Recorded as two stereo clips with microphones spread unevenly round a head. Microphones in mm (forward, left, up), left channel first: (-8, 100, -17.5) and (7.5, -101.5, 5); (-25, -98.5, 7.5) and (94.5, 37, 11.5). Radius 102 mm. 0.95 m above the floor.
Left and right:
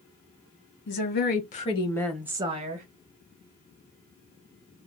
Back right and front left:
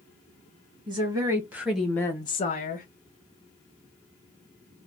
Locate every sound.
0.9 s a woman speaking: 115° left, 1.5 m; by 2.9 s 120° right, 1.0 m